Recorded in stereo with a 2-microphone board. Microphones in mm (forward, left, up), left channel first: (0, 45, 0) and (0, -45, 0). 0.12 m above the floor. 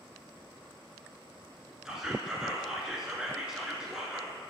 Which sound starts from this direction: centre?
Whispering, at 1.9 s.